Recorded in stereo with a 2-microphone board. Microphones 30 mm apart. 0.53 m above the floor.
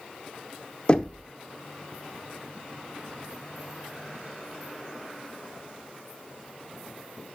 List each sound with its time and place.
0.9 s knocking: 30° left (ahead or behind), 0.6 m